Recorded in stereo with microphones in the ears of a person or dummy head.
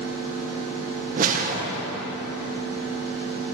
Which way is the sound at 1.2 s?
45° right (ahead or behind).